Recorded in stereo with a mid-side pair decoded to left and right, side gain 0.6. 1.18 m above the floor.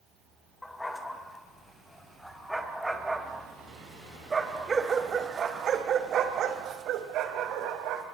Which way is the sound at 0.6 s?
15° left.